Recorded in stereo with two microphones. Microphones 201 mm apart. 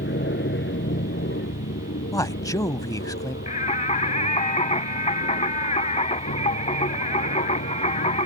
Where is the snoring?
I don't hear snoring.